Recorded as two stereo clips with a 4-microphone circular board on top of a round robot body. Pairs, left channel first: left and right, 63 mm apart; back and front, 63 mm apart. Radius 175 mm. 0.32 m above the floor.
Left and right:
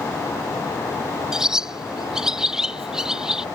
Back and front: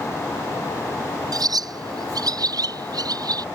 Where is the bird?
10° right.